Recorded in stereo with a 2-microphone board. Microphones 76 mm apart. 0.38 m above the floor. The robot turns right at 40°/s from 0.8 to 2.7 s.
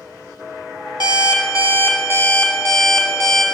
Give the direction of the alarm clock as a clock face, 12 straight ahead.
8 o'clock.